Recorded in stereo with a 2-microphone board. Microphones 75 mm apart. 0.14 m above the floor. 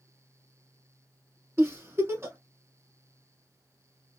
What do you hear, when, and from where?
1.6 s a giggle: 35° right (ahead or behind), 1.2 m